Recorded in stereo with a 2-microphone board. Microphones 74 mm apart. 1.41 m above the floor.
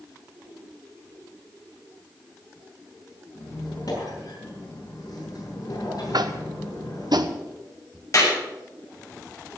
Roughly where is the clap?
Left.